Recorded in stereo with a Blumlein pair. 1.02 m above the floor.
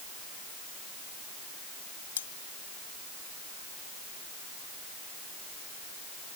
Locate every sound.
2.2 s cutlery clinking: 65° left